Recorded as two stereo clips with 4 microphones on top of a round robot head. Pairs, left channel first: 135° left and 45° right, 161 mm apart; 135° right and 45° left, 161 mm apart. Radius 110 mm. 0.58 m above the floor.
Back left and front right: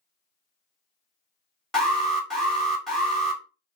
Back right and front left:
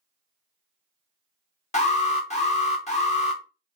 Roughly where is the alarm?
Behind right.